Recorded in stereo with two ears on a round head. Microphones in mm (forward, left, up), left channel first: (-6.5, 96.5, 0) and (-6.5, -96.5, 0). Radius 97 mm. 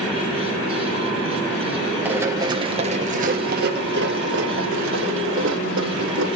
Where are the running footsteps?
10° right (ahead or behind), 1.7 m; by 6.3 s 60° right (ahead or behind), 4 m.